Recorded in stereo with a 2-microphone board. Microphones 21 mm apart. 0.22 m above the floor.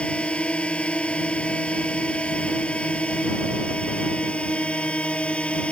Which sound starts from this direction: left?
A drone, at 0.0 s.